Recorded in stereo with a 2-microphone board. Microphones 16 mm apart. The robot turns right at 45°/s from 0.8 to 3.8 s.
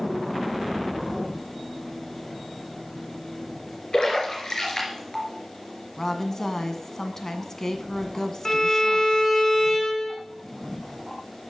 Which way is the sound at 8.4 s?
25° left (ahead or behind).